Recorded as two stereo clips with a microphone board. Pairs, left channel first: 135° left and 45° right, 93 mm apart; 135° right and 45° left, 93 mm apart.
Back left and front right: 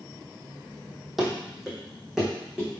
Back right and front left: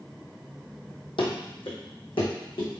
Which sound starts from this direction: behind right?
Running footsteps, at 1.2 s.